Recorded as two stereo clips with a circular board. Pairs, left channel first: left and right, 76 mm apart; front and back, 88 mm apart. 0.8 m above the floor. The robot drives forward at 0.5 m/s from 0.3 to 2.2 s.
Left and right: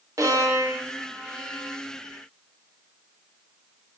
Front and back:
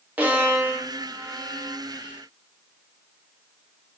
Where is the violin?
115° right, 0.9 m; by 1.8 s 150° right, 1.3 m.